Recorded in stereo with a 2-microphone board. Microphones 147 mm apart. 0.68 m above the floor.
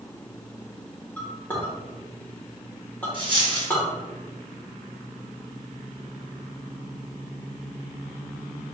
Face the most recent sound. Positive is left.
turn(degrees=-35)  # may be behind; listen again after turning